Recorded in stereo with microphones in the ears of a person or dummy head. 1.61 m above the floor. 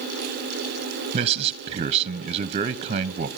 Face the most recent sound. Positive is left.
turn(degrees=-30)  # may be behind; listen again after turning